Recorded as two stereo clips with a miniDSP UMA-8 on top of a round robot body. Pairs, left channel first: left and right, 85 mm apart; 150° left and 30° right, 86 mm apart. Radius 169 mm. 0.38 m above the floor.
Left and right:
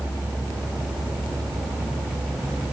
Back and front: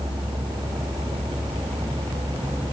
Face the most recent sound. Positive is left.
No sound to turn to.